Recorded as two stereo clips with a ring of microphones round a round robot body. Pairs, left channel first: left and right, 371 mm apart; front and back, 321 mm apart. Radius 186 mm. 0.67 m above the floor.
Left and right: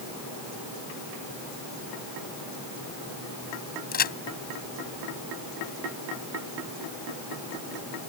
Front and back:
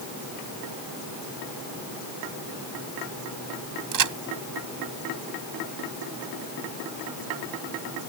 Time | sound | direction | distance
3.9 | a crack | 155° left | ?